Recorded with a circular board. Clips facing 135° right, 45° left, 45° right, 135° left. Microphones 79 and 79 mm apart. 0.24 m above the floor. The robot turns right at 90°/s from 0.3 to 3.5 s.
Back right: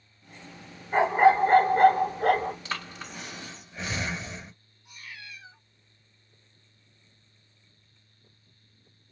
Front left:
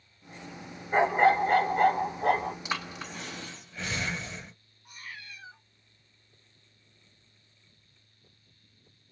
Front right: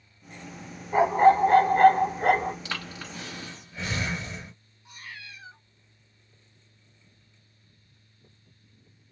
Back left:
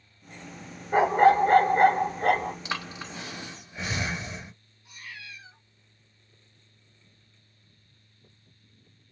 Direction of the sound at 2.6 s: 100° left.